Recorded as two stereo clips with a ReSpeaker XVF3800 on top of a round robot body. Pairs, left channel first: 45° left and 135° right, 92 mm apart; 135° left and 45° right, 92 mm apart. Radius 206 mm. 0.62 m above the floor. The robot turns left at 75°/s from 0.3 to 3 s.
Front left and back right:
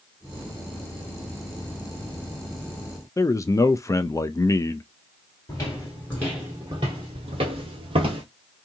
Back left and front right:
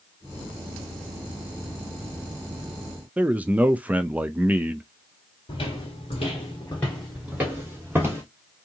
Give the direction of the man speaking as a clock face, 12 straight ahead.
11 o'clock.